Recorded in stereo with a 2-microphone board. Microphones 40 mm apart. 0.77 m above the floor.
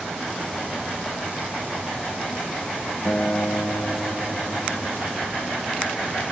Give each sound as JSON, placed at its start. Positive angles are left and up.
{"t": 3.0, "sound": "a guitar", "side_deg": 50, "distance_m": 1.4}